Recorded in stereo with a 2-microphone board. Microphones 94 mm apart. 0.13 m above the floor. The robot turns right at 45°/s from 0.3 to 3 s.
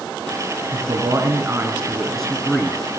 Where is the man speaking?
65° right, 2 m; by 2.8 s 30° left, 2 m.